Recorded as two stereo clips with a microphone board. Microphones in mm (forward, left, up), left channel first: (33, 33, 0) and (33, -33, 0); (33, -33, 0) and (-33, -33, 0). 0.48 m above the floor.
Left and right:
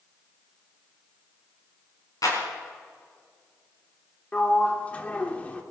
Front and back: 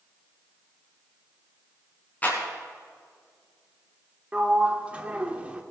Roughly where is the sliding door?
Behind left.